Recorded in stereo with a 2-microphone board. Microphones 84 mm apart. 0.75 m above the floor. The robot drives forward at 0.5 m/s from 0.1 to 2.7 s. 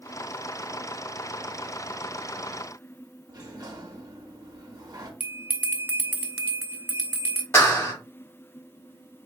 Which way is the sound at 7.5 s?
25° left (ahead or behind).